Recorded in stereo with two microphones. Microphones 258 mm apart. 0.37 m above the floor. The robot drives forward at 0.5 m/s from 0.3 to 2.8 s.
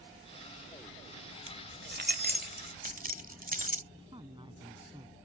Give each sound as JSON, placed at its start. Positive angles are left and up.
{"t": 1.5, "sound": "keys jangling", "side_deg": -50}
{"t": 3.9, "sound": "a woman speaking", "side_deg": -20}